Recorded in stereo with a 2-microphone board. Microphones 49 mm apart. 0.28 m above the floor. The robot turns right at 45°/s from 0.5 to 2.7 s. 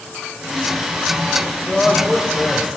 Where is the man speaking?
10° left (ahead or behind), 1.1 m; by 2.8 s 5° right (ahead or behind), 1.1 m.